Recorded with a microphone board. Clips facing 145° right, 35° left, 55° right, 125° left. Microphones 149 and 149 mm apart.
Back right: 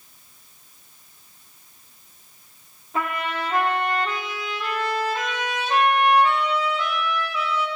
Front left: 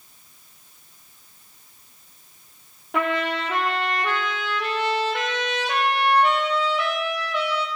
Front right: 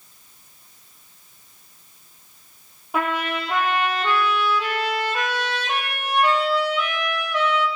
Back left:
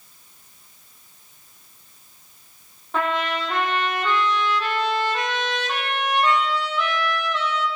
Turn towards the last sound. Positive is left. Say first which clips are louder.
# front left 3 dB, even
turn(degrees=25)